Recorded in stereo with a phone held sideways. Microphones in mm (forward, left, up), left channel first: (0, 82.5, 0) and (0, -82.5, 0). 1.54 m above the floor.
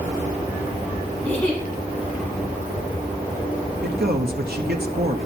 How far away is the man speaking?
About 0.9 m.